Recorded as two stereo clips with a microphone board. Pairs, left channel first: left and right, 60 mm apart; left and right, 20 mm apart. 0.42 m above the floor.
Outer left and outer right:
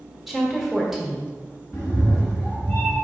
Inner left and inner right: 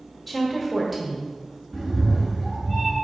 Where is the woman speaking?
Centre (ahead or behind), 1.5 m.